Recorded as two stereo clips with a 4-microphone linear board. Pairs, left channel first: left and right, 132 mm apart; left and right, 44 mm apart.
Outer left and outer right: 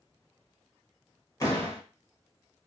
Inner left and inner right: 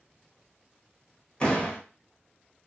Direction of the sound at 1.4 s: 25° left (ahead or behind).